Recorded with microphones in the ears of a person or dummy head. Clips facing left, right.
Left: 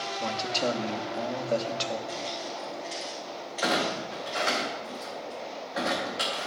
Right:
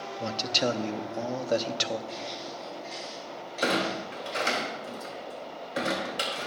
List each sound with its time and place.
0.2 s a man speaking: 25° right (ahead or behind), 0.6 m
2.1 s footsteps: 25° left (ahead or behind), 5 m; by 4.6 s 5° left (ahead or behind), 5.5 m
3.6 s a clunk: 40° right (ahead or behind), 2 m